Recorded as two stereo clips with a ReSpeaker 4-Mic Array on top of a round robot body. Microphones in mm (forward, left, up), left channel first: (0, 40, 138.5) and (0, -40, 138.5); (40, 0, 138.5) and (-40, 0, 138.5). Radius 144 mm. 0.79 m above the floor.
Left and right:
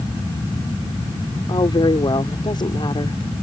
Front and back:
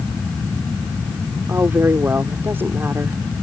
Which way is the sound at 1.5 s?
115° left.